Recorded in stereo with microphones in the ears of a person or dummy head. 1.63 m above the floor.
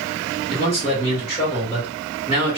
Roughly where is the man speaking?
Left.